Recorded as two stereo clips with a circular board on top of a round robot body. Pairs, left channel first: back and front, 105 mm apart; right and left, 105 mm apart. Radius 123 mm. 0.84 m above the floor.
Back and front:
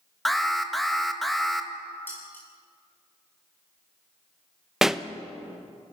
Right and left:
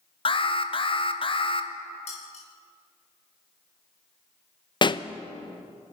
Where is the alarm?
90° right, 1.8 m.